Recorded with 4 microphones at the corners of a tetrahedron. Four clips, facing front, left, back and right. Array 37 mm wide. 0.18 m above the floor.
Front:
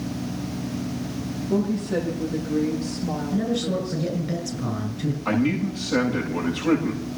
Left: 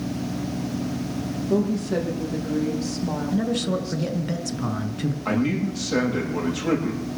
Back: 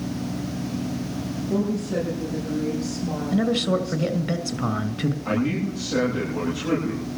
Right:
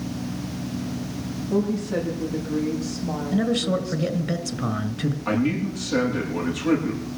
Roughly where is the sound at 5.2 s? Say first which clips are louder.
Even, front 4 dB; left.